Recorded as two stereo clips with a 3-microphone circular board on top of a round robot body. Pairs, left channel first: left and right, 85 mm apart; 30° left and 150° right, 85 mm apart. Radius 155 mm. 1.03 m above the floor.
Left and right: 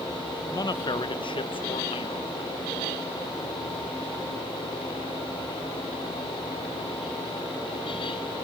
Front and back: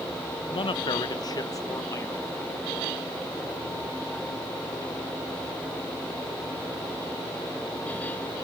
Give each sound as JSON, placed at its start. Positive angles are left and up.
{"t": 0.5, "sound": "a man speaking", "azimuth_deg": 45, "distance_m": 1.0}